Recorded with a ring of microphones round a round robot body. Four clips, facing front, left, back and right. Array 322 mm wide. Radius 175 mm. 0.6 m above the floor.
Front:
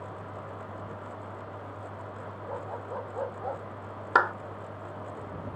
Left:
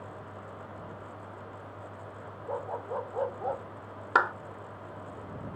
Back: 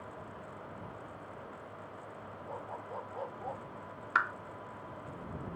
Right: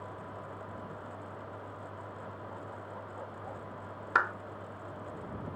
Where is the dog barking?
70° left; by 3.6 s 65° left.